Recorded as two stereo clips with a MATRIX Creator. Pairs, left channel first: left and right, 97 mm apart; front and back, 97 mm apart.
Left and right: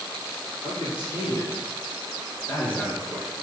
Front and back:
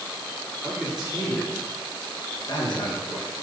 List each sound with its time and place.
0.6 s a man speaking: 100° left, 1.3 m; by 3.3 s 15° right, 0.7 m